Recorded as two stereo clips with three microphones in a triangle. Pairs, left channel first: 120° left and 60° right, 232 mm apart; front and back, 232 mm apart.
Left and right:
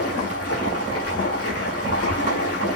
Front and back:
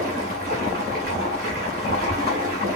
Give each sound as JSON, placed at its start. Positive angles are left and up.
{"t": 0.0, "sound": "running water", "azimuth_deg": 130, "distance_m": 3.0}